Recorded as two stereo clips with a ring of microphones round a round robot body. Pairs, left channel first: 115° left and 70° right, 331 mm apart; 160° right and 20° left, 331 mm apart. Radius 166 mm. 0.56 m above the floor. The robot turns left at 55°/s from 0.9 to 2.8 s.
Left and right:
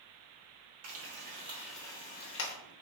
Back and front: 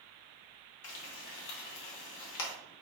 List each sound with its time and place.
0.8 s frying: 110° right, 0.9 m; by 2.5 s 155° left, 0.9 m